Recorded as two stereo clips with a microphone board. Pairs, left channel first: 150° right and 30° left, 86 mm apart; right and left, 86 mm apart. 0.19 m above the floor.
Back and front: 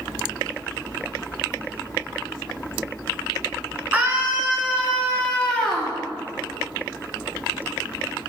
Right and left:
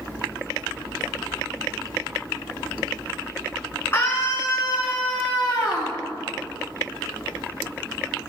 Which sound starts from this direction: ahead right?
A scream, at 3.9 s.